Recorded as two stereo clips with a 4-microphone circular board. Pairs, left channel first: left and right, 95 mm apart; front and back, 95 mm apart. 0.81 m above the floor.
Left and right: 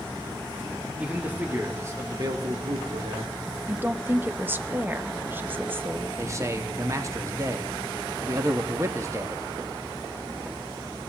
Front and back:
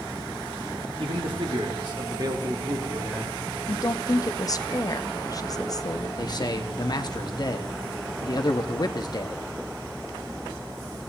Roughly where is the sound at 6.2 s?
Ahead right.